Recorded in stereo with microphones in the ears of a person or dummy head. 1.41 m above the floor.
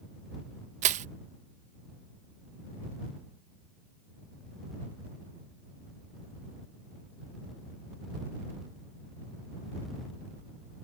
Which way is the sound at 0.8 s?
40° right (ahead or behind).